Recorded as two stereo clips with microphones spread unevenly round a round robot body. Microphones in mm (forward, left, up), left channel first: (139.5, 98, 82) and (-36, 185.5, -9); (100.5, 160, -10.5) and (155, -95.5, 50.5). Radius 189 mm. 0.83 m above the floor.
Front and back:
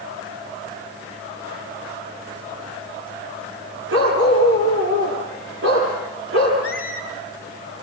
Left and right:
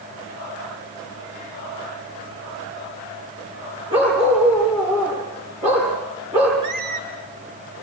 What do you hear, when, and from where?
3.9 s a dog barking: 155° right, 8 m
6.6 s a squeak: 90° right, 4.5 m